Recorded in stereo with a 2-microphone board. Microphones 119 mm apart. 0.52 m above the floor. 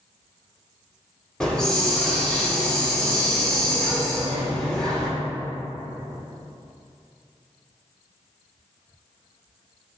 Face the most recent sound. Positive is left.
turn(degrees=5)  # may be behind; listen again after turning